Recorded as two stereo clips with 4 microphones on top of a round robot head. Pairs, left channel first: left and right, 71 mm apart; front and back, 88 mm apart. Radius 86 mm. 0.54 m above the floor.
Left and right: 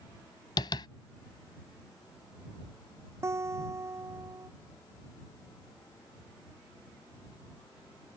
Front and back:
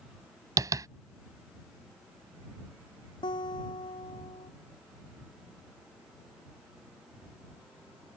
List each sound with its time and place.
0.6 s tapping: 130° left
3.2 s a guitar: 40° right